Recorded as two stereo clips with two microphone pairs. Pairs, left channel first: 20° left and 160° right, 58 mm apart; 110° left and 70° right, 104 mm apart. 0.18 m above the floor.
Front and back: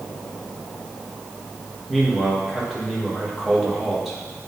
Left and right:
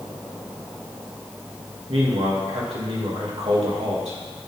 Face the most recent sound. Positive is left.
turn(degrees=-70)